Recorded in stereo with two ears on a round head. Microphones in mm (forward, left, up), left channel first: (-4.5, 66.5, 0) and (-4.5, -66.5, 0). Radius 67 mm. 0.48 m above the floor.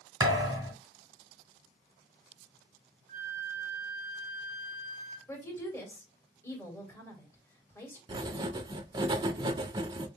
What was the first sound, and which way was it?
A thud, 25° right (ahead or behind).